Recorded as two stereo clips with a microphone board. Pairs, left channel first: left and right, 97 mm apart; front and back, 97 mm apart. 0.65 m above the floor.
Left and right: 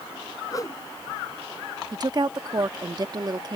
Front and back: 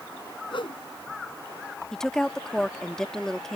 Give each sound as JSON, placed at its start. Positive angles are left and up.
{"t": 0.5, "sound": "a whoosh", "azimuth_deg": 35}
{"t": 1.9, "sound": "a woman speaking", "azimuth_deg": -80}